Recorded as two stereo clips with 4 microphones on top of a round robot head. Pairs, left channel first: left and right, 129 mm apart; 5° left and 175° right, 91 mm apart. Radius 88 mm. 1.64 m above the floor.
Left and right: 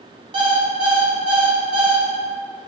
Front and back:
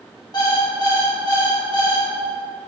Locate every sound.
0.3 s an alarm clock: 55° right, 1.4 m